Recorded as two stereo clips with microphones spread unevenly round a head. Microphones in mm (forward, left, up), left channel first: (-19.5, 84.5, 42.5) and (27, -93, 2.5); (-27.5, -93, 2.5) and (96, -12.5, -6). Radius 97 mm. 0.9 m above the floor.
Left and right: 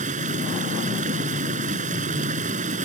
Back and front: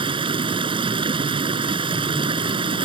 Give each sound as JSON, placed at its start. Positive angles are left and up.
{"t": 0.0, "sound": "running water", "azimuth_deg": -25}